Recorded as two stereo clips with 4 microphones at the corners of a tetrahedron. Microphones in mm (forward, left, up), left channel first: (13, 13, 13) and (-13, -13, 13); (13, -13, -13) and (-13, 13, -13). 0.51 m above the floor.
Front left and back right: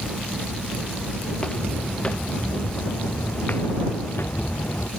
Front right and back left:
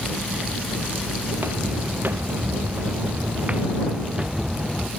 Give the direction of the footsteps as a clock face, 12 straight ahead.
8 o'clock.